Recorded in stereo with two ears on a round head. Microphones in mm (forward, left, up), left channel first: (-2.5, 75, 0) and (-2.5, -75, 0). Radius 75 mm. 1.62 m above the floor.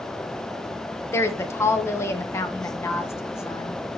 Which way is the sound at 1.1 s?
15° left (ahead or behind).